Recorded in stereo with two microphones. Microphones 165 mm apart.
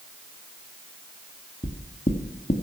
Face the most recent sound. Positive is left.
turn(degrees=45)  # may be behind; listen again after turning